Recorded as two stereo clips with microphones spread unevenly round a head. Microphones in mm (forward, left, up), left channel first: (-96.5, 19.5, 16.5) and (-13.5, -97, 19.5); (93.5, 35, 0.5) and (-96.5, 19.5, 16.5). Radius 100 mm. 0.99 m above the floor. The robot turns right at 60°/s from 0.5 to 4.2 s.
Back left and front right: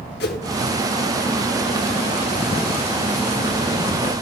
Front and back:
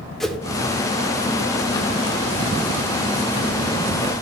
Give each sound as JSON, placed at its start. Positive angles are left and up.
{"t": 0.2, "sound": "a whoosh", "azimuth_deg": 95, "distance_m": 1.2}